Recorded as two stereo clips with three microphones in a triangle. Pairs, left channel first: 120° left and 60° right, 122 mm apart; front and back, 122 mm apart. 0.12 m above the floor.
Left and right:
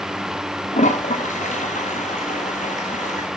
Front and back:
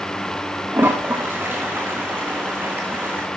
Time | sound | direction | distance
0.7 | a toilet flushing | 105° left | 2 m